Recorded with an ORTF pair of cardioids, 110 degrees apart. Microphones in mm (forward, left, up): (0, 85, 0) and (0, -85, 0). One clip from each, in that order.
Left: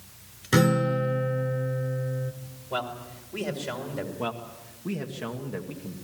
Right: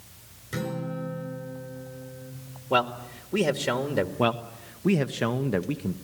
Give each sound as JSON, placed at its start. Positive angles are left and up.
{"t": 0.5, "sound": "a guitar", "azimuth_deg": 70, "distance_m": 3.5}
{"t": 2.7, "sound": "a man speaking", "azimuth_deg": -60, "distance_m": 2.0}
{"t": 4.2, "sound": "a man speaking", "azimuth_deg": -50, "distance_m": 1.0}